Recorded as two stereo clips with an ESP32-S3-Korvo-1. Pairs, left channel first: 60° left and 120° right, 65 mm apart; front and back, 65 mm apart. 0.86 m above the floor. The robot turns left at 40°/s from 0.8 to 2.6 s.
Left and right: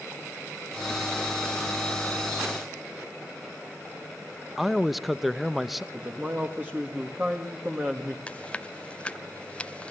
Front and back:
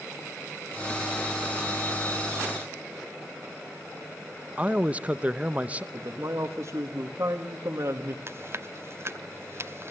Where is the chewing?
130° left, 0.8 m.